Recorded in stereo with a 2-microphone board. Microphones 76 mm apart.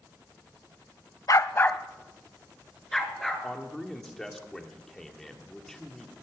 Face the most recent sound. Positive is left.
turn(degrees=5)  # may be behind; listen again after turning